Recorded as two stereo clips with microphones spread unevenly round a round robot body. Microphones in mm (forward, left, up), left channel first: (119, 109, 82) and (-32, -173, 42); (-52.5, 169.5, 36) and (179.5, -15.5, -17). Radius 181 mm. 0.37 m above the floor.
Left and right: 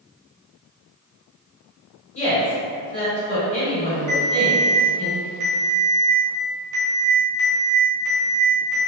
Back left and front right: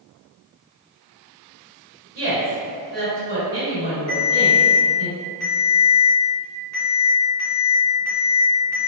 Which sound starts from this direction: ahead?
A woman speaking, at 2.1 s.